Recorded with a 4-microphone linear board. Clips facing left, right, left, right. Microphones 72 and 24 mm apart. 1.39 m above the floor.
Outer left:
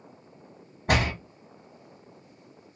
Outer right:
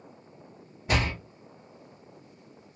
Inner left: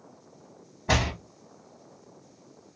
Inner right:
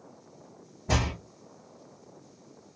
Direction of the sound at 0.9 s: 60° left (ahead or behind).